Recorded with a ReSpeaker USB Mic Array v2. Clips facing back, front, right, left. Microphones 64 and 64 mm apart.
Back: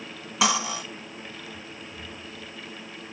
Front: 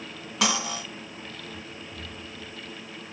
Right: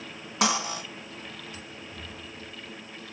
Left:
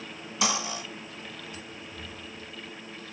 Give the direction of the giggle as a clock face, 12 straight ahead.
I don't hear a giggle.